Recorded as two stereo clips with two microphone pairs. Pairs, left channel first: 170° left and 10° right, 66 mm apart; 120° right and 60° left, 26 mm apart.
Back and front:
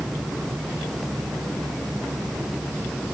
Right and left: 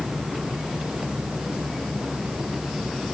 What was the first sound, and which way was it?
Only background noise.